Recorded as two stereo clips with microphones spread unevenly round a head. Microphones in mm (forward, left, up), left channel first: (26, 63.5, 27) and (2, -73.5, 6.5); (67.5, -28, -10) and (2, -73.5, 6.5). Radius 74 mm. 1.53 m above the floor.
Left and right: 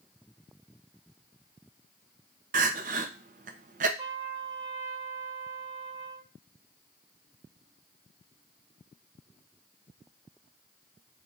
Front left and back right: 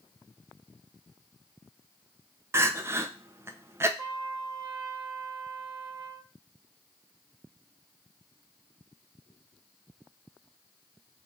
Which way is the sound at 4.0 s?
170° right.